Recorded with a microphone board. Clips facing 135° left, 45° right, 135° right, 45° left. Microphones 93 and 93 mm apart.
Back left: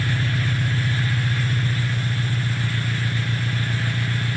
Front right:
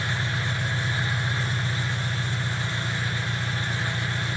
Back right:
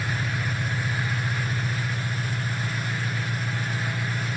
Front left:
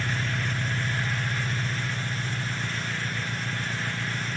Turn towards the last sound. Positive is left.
turn(degrees=125)